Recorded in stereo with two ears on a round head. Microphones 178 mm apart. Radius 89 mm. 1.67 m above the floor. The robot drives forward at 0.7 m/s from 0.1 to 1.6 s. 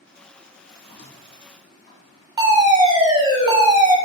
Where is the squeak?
35° left (ahead or behind), 0.6 m; by 2.3 s 25° left (ahead or behind), 1.0 m.